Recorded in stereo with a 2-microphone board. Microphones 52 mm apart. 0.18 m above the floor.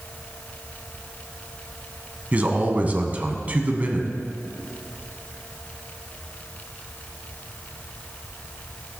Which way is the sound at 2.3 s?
30° right (ahead or behind).